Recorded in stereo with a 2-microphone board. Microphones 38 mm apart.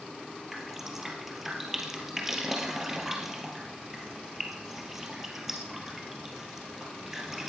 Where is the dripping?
10° right (ahead or behind), 2.5 m.